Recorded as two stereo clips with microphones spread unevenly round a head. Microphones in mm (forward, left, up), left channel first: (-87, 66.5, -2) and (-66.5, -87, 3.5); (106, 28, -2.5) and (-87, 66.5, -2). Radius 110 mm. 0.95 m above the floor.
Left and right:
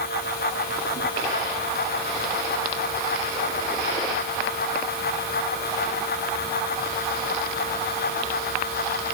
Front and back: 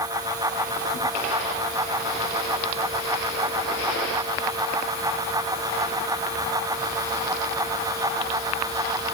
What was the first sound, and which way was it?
Only background noise.